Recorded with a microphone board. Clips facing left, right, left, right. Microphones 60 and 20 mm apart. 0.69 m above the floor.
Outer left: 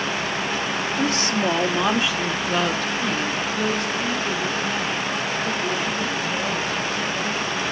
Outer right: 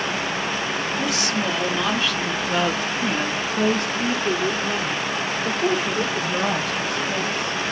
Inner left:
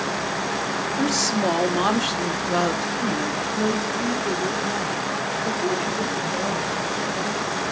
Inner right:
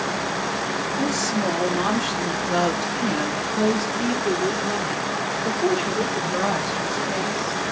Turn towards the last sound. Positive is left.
turn(degrees=-70)  # may be behind; listen again after turning